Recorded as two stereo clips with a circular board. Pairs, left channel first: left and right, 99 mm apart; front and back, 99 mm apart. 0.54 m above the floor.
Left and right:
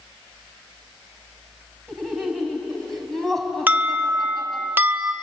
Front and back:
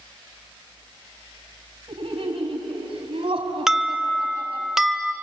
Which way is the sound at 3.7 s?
105° right.